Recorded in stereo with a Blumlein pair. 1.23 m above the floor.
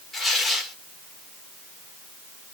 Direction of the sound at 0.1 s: 5° left.